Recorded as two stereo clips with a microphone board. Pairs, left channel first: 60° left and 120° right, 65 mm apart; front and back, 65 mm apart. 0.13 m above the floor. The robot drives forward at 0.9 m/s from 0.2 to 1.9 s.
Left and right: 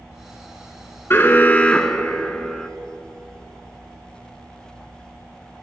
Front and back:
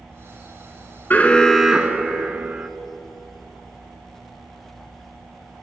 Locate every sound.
1.1 s an alarm: 40° left, 0.9 m; by 2.7 s 130° left, 0.8 m